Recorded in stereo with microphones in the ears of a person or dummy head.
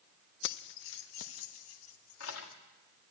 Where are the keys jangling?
55° left (ahead or behind), 0.6 m; by 2.6 s 85° left, 2.5 m.